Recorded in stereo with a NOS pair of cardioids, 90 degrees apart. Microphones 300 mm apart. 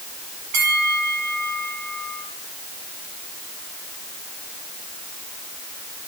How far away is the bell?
About 5.5 m.